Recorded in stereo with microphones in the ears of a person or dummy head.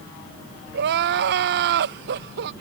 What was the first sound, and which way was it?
Crying, 60° right (ahead or behind).